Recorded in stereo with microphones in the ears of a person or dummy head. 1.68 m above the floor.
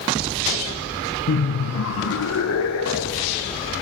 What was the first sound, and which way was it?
Laughter, 50° left (ahead or behind).